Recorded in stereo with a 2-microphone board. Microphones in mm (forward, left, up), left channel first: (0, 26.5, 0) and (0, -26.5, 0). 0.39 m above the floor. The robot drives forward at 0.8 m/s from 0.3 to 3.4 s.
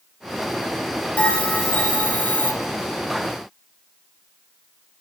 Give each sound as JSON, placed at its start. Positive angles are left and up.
{"t": 1.2, "sound": "a bell", "side_deg": 25, "distance_m": 3.5}